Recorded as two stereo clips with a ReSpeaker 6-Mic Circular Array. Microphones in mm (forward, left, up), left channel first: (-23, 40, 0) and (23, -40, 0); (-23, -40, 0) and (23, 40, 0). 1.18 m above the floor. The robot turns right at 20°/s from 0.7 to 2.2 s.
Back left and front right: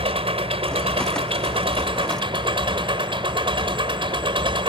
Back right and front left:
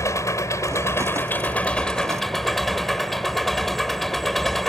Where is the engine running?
65° right; by 4.7 s 35° right.